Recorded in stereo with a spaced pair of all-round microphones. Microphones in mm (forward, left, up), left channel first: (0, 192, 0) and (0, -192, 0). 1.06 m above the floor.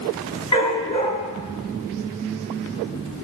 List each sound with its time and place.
0.5 s a dog barking: 10° left (ahead or behind), 7 m